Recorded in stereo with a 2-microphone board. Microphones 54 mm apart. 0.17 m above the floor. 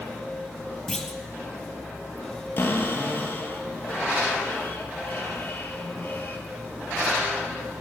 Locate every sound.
0.9 s a clunk: 10° left (ahead or behind), 0.8 m
2.6 s a cupboard door: 40° left (ahead or behind), 1.1 m